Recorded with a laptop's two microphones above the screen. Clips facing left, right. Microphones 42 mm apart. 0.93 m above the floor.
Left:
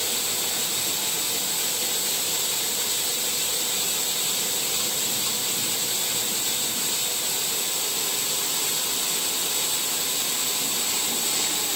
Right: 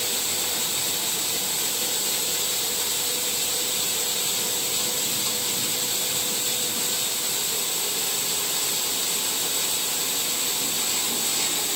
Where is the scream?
No scream in this recording.